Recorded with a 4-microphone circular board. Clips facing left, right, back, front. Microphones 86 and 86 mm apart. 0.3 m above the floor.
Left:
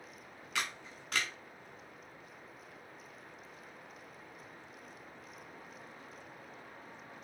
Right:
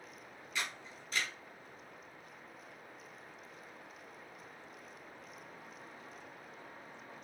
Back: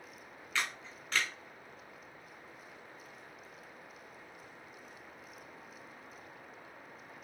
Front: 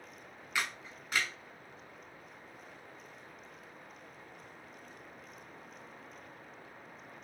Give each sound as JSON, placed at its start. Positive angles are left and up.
{"t": 0.6, "sound": "a camera shutter", "azimuth_deg": 80, "distance_m": 0.9}